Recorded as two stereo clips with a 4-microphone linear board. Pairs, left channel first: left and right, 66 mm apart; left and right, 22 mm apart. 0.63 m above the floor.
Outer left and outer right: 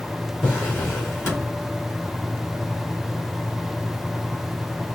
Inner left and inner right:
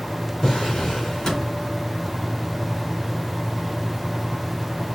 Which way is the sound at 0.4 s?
35° left (ahead or behind).